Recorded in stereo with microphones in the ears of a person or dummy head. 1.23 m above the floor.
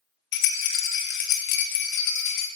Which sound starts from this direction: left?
A rattle, at 0.3 s.